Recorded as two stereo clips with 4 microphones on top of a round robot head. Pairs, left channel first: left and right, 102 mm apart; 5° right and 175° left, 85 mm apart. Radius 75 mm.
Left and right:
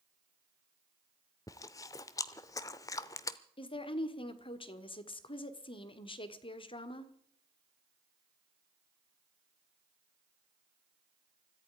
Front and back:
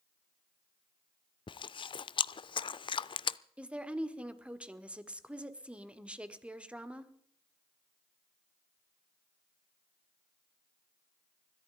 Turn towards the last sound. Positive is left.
turn(degrees=100)